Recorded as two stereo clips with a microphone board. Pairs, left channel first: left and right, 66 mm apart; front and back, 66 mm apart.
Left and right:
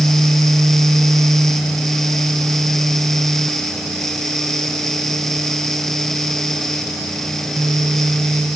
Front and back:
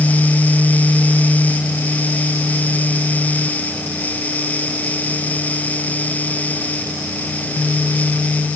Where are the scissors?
No scissors in this recording.